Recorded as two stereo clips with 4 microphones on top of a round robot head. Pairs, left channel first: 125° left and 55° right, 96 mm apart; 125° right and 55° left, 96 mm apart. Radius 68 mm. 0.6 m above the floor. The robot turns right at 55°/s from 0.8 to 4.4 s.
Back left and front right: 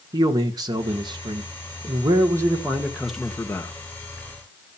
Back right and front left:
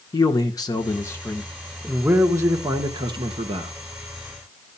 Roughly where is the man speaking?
Right.